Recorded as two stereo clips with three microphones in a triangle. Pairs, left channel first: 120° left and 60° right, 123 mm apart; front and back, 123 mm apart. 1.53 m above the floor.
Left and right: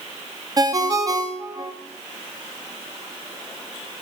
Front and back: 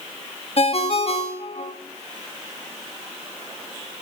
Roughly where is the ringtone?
Ahead.